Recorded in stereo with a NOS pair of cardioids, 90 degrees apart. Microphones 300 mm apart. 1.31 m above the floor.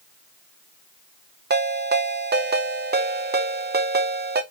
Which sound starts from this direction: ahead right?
A ringtone, at 1.5 s.